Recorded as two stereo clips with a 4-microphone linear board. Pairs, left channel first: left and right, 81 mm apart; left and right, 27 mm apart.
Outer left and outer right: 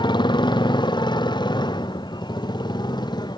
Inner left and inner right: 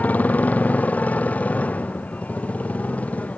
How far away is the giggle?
I don't hear a giggle.